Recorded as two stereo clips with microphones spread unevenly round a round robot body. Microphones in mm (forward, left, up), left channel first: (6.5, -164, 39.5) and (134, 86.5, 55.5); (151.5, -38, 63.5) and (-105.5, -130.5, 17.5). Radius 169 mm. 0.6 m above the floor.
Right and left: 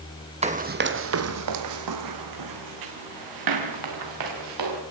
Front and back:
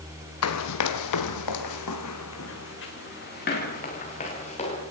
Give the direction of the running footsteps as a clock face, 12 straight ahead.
12 o'clock.